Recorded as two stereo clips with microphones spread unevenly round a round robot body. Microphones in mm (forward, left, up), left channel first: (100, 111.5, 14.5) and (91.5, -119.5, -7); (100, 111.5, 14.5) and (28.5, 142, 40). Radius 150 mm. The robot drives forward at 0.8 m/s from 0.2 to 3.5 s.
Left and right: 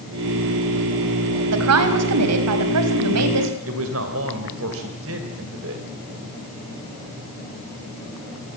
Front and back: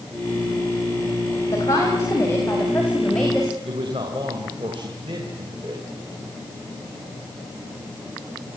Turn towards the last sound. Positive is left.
turn(degrees=-140)